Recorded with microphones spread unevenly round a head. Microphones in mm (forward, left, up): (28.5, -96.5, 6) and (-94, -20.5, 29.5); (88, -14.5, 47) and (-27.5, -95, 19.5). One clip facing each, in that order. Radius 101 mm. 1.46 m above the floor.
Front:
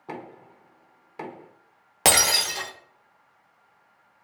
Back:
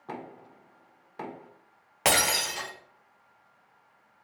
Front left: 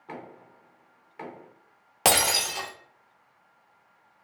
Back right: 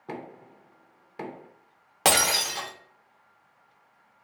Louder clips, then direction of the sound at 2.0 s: Front 3 dB, even; straight ahead.